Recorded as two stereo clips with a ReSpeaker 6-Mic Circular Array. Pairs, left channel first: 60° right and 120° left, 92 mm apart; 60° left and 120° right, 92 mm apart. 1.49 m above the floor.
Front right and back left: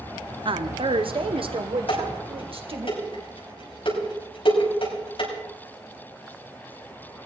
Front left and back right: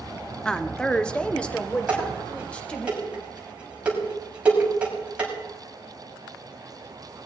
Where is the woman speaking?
140° left, 0.6 m; by 2.9 s 135° left, 2 m.